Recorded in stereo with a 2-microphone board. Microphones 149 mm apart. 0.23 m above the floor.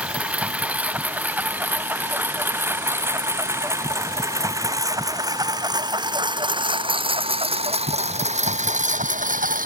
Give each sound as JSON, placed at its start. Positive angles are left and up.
{"t": 0.0, "sound": "a lawn mower", "side_deg": -10}